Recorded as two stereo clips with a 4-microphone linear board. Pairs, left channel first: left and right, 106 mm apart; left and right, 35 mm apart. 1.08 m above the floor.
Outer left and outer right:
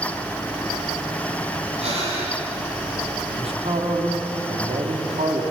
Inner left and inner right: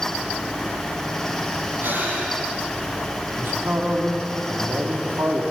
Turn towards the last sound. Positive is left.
turn(degrees=-70)  # may be behind; listen again after turning